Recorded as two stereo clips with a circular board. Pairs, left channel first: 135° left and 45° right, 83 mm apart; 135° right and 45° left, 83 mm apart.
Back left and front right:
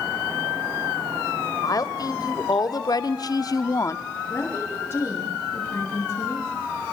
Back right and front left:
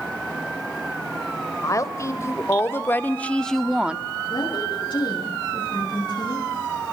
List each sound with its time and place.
1.6 s a woman speaking: 175° left, 2.5 m; by 4.0 s 105° left, 1.0 m
4.3 s a woman speaking: 165° right, 8.5 m